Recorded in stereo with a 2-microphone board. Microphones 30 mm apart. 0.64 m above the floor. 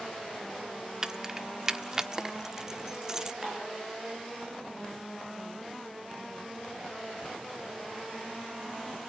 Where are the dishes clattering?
10° right (ahead or behind), 7.5 m.